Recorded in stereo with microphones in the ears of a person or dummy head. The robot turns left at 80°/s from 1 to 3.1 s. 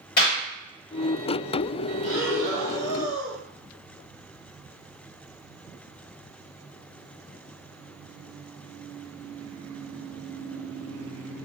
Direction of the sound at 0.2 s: 55° left (ahead or behind).